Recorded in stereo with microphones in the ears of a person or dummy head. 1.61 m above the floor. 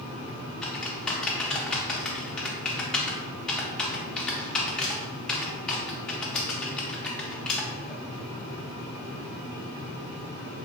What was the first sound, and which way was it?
Typing on a keyboard, centre (ahead or behind).